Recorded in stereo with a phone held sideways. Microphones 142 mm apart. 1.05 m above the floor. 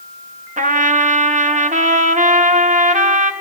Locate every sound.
0.6 s a trumpet: 65° right (ahead or behind), 1.2 m